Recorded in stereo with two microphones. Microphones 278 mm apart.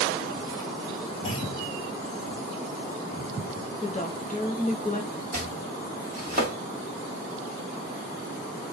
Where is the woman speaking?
30° left (ahead or behind), 1.0 m.